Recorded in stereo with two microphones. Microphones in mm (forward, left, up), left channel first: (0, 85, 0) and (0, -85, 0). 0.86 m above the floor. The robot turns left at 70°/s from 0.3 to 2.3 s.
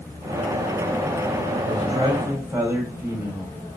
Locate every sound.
1.6 s a man speaking: 115° right, 3 m; by 3.5 s 165° right, 3 m